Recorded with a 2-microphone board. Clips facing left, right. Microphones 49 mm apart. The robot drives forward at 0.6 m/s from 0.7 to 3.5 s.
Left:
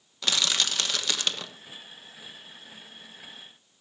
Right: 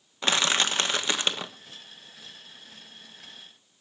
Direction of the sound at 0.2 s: 30° right (ahead or behind).